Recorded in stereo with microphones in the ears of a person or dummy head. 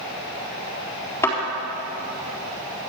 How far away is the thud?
About 4 m.